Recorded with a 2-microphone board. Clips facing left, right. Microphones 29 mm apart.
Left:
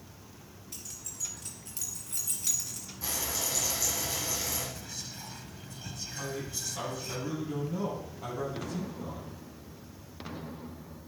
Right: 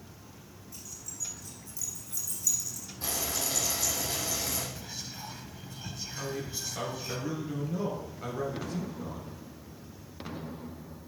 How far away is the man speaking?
About 4.5 m.